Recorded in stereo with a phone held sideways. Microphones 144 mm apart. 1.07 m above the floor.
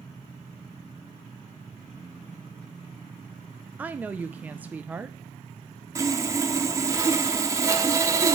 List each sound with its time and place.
3.8 s a woman speaking: 10° right (ahead or behind), 0.5 m
6.0 s sawing: 20° right (ahead or behind), 1.0 m